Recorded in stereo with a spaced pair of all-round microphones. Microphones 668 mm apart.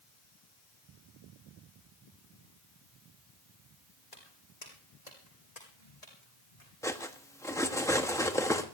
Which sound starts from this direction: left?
Footsteps, at 4.1 s.